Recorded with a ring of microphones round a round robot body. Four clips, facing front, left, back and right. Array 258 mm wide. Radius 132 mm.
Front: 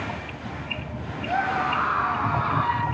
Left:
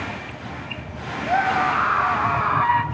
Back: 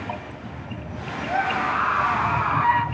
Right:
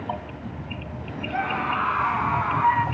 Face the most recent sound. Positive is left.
turn(degrees=105)